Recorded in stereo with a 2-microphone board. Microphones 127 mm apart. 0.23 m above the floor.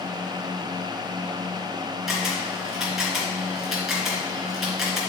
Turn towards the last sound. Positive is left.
turn(degrees=0)  # may be behind; listen again after turning